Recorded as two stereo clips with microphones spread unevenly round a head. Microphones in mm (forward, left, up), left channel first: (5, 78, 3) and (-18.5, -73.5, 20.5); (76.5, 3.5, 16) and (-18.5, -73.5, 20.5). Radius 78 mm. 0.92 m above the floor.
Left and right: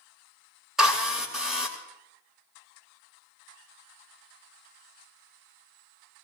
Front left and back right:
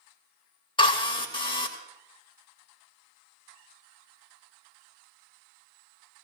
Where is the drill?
10° right, 3 m.